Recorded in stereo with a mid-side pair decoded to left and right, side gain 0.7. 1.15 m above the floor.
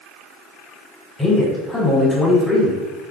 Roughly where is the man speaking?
Ahead.